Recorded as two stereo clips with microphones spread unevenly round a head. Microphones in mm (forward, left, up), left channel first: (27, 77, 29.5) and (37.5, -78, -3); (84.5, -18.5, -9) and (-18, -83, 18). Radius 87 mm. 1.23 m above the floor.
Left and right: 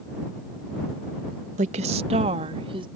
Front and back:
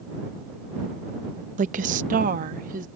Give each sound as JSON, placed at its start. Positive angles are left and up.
{"t": 1.6, "sound": "a woman speaking", "azimuth_deg": -140}